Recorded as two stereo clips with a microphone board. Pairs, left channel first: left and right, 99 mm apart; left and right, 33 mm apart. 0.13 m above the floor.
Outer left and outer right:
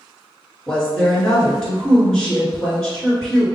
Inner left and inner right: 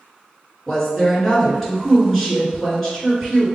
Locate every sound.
0.7 s a woman speaking: 5° left (ahead or behind), 1.8 m